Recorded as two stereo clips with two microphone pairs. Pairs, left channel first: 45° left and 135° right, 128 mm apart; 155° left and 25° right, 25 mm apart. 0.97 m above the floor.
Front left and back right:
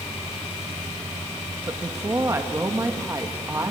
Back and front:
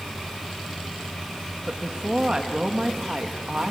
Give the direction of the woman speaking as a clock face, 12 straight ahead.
2 o'clock.